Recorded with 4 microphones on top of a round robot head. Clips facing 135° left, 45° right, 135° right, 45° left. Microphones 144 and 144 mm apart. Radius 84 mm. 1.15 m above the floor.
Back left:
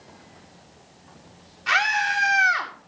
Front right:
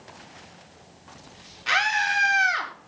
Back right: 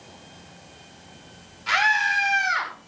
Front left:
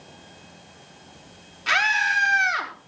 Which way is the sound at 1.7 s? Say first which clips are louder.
Back left 1 dB, back right 2 dB; 15° left.